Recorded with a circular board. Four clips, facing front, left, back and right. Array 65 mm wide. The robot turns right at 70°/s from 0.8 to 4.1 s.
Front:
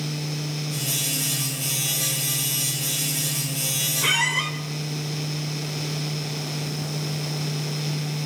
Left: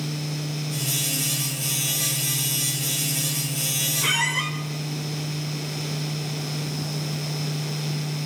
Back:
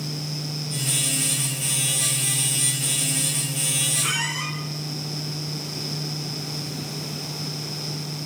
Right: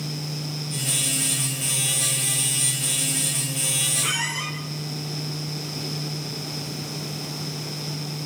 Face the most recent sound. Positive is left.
turn(degrees=30)